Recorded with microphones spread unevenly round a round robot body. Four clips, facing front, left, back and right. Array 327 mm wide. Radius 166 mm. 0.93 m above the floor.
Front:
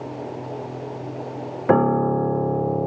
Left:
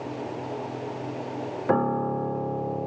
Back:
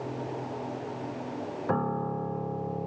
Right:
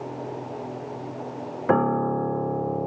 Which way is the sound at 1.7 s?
5° right.